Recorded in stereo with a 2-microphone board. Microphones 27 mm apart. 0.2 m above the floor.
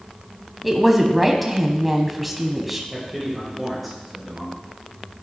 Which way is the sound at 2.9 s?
Centre (ahead or behind).